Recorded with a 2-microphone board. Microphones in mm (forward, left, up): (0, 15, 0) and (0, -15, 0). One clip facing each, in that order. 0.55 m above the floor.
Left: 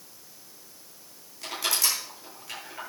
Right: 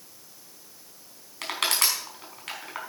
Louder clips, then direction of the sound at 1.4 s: Right 2 dB; 75° right (ahead or behind).